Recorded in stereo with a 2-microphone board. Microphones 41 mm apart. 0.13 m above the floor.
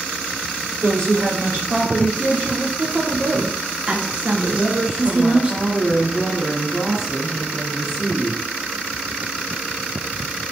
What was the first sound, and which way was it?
A woman speaking, 65° right (ahead or behind).